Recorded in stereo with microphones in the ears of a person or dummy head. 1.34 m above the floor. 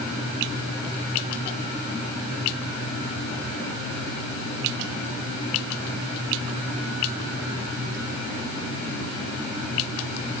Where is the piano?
No piano in this recording.